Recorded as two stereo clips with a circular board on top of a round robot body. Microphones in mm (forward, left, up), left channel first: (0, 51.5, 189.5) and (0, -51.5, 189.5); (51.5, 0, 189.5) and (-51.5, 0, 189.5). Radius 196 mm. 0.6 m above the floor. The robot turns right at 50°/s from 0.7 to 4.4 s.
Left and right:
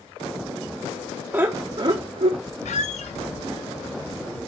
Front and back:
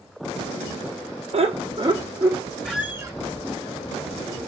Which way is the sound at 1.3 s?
160° right.